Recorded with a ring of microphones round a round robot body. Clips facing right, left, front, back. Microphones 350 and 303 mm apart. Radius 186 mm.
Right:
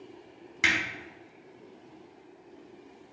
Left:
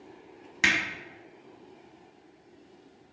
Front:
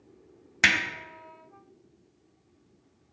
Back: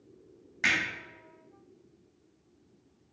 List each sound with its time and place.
0.6 s hammering: 5° left, 0.8 m